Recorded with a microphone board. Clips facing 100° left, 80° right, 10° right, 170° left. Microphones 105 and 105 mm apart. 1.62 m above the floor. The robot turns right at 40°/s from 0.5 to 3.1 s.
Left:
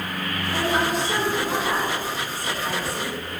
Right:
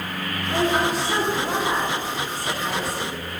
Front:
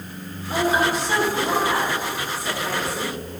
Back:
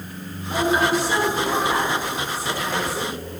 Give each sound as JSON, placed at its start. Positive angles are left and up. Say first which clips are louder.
{"t": 0.5, "sound": "a woman speaking", "louder": "right 2 dB, back 1 dB", "azimuth_deg": -80, "distance_m": 3.0}